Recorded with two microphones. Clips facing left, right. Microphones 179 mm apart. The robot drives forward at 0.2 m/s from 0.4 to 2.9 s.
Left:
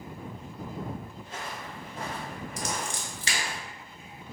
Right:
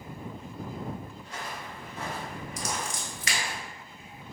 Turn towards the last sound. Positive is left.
turn(degrees=35)  # may be behind; listen again after turning